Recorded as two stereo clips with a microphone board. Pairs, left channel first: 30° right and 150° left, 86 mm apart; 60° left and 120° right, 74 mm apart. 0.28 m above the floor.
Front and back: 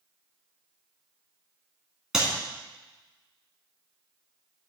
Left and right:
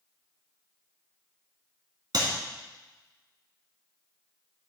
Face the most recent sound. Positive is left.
turn(degrees=-125)